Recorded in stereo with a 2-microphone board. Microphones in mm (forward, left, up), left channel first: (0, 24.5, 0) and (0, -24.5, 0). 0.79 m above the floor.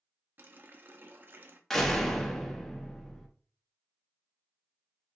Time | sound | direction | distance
0.4 | a running tap | 40° right (ahead or behind) | 0.6 m
1.7 | a door slam | 5° left (ahead or behind) | 0.8 m